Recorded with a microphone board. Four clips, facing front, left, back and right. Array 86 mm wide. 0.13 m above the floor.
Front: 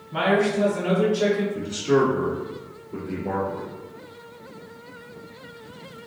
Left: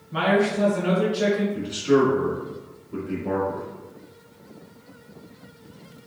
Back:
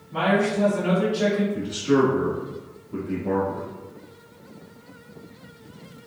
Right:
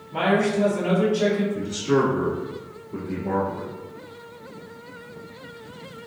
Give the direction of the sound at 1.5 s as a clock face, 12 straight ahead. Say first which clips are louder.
Left 2 dB, even; 8 o'clock.